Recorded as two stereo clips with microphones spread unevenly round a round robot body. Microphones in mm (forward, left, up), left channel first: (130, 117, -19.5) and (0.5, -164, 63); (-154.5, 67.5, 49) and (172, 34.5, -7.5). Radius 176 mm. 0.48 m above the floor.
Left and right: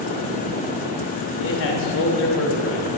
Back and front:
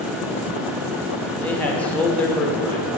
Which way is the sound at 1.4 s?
80° left.